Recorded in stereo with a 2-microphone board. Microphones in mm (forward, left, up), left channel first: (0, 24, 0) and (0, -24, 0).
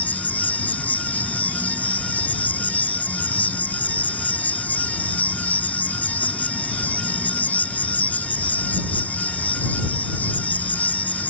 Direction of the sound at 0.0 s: 35° left (ahead or behind).